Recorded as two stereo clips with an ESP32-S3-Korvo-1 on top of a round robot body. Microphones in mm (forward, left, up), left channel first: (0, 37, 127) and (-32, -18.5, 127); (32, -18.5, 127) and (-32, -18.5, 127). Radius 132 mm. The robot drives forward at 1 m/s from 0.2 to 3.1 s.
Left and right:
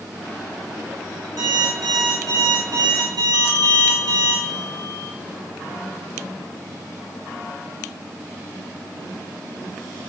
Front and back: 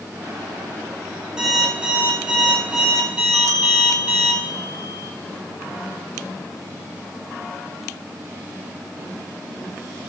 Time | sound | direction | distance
1.4 | an alarm clock | 100° right | 9 m
3.3 | a bell | 140° right | 3.5 m